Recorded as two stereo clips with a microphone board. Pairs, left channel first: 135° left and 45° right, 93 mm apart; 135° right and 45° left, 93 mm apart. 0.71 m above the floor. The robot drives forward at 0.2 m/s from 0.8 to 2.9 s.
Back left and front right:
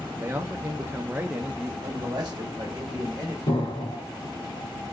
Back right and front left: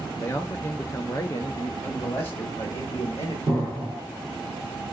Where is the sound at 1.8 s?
80° right, 1.4 m; by 3.4 s 90° right, 1.4 m.